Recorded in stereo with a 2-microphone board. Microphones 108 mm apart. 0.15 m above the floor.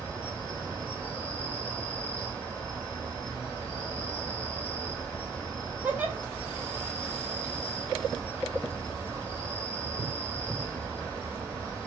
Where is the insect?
15° left (ahead or behind), 2 m.